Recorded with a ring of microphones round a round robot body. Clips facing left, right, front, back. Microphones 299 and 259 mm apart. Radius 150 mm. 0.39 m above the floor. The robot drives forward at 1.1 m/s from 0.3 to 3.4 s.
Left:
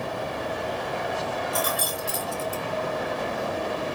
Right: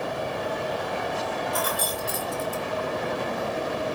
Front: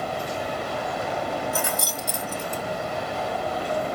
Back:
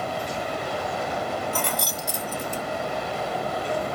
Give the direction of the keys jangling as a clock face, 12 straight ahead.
9 o'clock.